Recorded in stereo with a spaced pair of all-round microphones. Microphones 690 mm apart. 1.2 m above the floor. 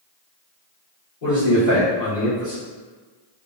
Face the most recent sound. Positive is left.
turn(degrees=85)